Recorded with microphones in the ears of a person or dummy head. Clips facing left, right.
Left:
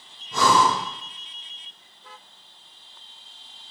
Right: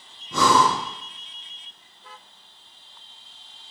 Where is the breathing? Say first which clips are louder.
Right 1 dB; 80° right, 0.8 m.